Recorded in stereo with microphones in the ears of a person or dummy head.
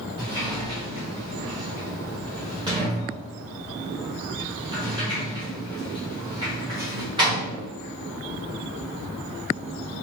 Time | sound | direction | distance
0.2 | a sliding door | 20° right (ahead or behind) | 1.2 m